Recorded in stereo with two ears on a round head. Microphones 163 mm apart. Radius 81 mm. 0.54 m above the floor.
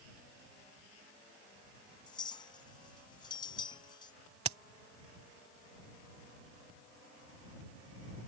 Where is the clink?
25° left (ahead or behind).